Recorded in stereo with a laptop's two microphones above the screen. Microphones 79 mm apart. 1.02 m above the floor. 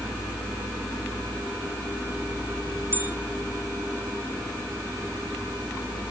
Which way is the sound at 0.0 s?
30° right (ahead or behind).